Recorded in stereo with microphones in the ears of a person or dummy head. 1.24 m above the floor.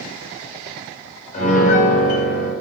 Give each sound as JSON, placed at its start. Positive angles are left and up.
{"t": 1.3, "sound": "a piano", "side_deg": 50, "distance_m": 4.5}